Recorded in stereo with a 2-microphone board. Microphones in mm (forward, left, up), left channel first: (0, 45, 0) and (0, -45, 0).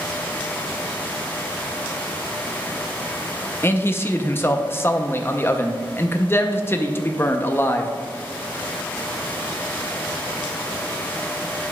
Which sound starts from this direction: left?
A man speaking, at 3.6 s.